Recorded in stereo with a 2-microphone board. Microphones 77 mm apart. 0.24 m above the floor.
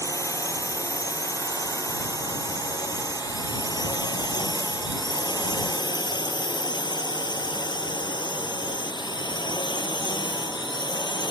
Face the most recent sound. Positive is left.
turn(degrees=75)  # may be behind; listen again after turning